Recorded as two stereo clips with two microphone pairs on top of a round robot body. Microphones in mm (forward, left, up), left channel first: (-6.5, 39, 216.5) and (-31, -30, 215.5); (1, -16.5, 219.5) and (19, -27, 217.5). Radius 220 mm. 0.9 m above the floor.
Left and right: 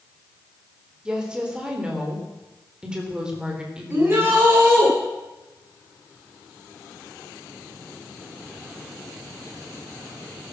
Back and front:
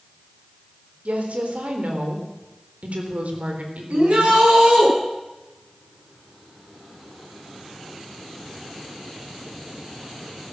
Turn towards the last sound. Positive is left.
turn(degrees=-50)